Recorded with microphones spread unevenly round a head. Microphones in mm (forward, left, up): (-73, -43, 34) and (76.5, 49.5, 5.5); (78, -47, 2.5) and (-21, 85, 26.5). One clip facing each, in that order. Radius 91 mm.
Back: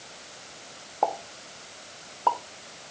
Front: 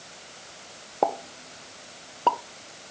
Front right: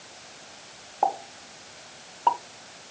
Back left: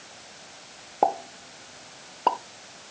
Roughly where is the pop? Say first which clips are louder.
Front 2 dB, back left 2 dB; left.